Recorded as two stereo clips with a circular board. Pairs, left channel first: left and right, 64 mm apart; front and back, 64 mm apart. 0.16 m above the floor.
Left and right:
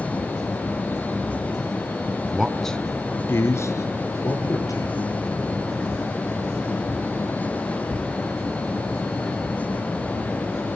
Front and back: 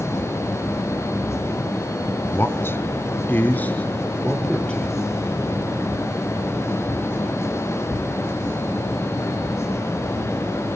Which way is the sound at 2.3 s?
20° right.